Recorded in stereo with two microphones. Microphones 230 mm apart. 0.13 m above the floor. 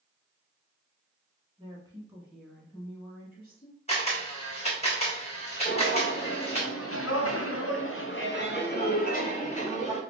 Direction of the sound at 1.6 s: 20° right (ahead or behind).